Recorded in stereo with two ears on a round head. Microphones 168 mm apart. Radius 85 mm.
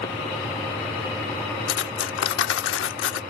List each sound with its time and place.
1.7 s cutlery clinking: 70° left (ahead or behind)